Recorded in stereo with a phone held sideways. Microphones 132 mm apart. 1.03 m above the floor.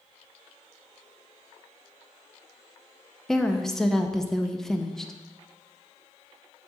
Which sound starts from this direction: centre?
A woman speaking, at 3.3 s.